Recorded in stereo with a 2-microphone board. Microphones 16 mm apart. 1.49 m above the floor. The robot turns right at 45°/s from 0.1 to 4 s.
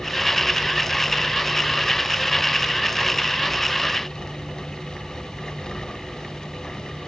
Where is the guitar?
I don't hear a guitar.